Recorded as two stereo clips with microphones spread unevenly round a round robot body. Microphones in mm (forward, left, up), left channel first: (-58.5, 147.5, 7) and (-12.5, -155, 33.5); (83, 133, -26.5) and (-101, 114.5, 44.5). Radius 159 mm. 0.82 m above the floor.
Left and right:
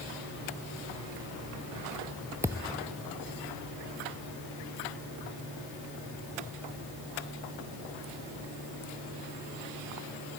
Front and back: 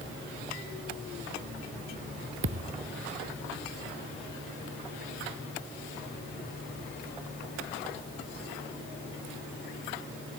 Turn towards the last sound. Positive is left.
turn(degrees=-165)